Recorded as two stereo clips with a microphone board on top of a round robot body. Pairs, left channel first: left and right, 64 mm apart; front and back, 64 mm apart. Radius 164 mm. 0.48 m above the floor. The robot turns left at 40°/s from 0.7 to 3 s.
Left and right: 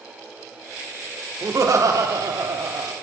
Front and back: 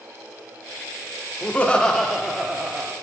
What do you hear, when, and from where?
1.4 s laughter: 60° right, 1.6 m; by 2.9 s 120° right, 1.6 m